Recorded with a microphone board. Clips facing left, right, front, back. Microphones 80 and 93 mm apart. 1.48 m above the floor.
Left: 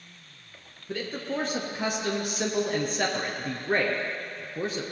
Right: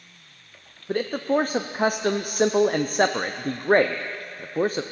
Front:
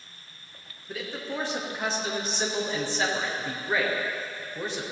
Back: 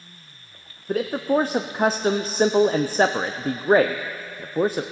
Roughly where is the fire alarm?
No fire alarm in this recording.